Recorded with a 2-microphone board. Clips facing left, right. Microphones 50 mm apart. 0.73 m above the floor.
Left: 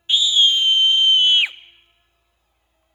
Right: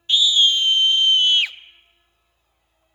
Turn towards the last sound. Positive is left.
turn(degrees=20)  # may be behind; listen again after turning